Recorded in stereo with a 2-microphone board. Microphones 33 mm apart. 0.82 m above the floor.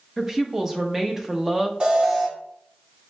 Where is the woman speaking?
10° right (ahead or behind), 0.8 m.